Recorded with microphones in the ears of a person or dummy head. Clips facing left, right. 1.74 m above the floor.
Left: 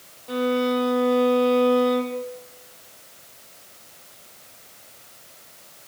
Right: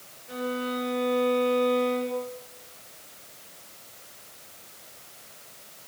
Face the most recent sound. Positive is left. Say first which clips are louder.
# left 9 dB
turn(degrees=55)  # may be behind; listen again after turning